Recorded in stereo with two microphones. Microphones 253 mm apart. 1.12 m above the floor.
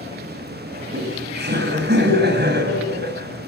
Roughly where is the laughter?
Right.